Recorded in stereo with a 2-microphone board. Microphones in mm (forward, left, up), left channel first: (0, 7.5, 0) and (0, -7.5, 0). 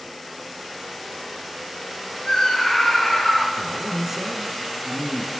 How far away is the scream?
About 4 m.